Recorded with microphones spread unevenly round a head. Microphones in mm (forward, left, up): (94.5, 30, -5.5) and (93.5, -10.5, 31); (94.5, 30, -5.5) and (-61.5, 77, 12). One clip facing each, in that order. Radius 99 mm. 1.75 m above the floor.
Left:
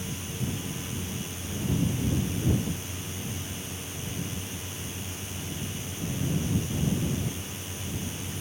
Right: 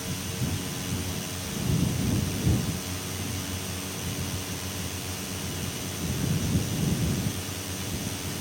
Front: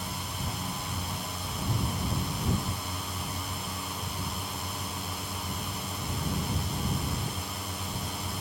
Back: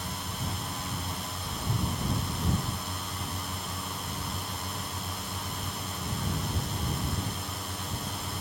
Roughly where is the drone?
Right.